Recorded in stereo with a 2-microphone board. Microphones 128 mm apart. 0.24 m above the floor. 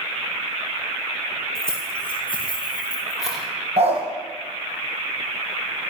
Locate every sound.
1.6 s keys jangling: 20° right (ahead or behind), 4.5 m; by 3.5 s centre (ahead or behind), 5 m
3.8 s a dog barking: 55° right (ahead or behind), 3.5 m